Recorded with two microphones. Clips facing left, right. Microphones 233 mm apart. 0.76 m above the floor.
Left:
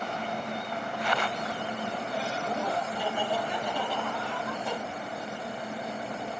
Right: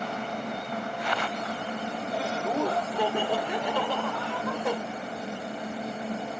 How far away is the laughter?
About 1.6 m.